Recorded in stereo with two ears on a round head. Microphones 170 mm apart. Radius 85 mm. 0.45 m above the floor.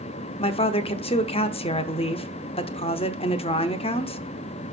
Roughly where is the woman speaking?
Left.